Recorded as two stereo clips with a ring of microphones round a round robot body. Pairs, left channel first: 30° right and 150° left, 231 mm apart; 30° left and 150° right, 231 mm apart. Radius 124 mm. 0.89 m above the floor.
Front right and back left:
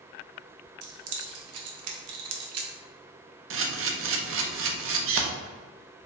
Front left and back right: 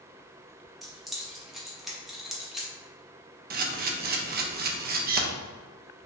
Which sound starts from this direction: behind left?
Keys jangling, at 0.8 s.